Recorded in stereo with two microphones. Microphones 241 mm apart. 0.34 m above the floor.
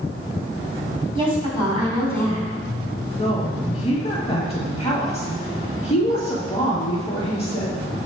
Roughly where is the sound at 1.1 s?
Right.